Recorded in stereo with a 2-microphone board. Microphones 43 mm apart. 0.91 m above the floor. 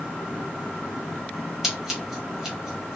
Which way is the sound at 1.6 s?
10° right (ahead or behind).